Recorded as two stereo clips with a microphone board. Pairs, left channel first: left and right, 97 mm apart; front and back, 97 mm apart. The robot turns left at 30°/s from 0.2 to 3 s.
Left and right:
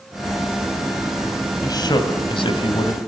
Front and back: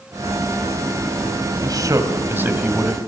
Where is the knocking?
I don't hear knocking.